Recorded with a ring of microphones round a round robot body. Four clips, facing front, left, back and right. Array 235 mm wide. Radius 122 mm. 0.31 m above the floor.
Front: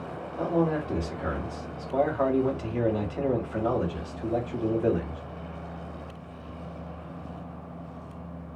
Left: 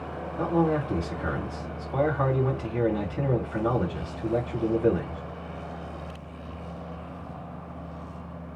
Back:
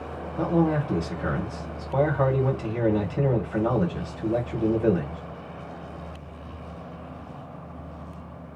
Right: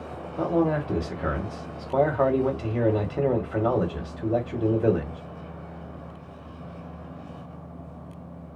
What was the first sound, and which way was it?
A man speaking, 100° right.